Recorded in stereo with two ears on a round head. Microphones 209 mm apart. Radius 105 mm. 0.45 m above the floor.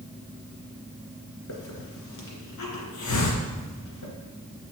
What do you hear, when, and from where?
1.5 s a hiss: 80° left, 2 m